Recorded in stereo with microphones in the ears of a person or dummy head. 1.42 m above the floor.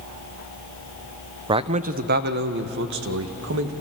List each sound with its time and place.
1.5 s a man speaking: 25° right (ahead or behind), 0.7 m; by 3.7 s 75° right (ahead or behind), 2.0 m